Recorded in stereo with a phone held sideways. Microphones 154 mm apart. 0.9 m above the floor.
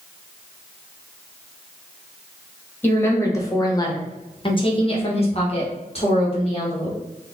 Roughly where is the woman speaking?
Centre.